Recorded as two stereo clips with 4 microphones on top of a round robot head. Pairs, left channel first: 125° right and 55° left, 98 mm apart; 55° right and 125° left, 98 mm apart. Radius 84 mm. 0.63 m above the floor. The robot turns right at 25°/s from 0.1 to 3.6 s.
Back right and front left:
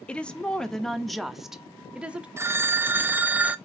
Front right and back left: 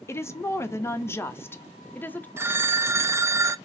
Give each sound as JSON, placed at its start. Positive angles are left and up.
{"t": 0.1, "sound": "a woman speaking", "azimuth_deg": -60, "distance_m": 0.6}
{"t": 2.4, "sound": "a phone ringing", "azimuth_deg": 85, "distance_m": 0.5}